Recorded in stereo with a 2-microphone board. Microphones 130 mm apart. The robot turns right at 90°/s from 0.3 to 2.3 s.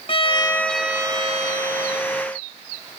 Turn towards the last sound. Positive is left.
turn(degrees=-45)